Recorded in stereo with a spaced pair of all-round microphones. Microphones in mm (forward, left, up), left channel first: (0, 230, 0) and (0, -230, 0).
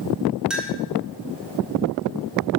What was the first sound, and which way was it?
A clink, centre (ahead or behind).